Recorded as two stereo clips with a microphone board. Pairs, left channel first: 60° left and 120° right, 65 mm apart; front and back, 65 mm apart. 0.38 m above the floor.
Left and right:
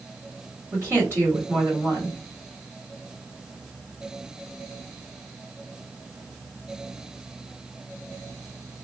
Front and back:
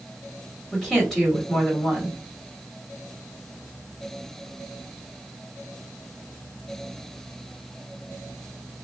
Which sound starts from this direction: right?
A woman speaking, at 0.7 s.